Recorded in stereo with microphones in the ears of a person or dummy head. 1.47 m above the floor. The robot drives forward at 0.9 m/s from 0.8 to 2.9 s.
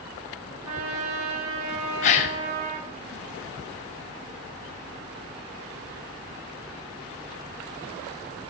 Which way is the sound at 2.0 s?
35° left (ahead or behind).